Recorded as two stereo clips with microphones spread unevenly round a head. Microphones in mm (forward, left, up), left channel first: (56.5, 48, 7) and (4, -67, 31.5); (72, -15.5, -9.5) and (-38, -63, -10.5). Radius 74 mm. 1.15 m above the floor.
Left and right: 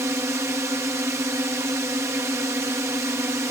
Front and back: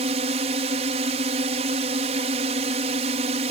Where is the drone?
170° left.